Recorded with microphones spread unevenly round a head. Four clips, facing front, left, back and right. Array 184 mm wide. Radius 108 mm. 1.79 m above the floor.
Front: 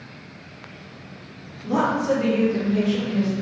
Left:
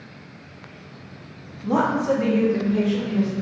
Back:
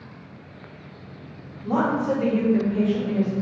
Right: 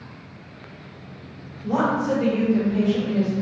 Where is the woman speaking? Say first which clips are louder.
Left 1 dB, front 1 dB; 90° left, 1.4 m; by 3.3 s 95° left, 3 m.